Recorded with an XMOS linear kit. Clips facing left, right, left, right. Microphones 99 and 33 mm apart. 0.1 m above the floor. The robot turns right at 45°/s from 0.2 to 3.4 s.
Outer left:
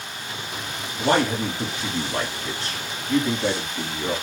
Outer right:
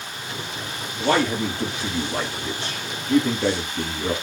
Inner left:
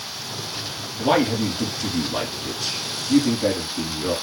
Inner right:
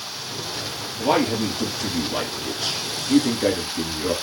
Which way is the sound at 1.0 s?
125° left.